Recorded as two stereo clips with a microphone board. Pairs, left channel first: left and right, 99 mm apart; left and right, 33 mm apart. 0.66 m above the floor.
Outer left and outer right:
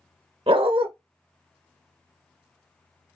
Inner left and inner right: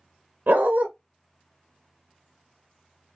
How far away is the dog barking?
About 0.7 m.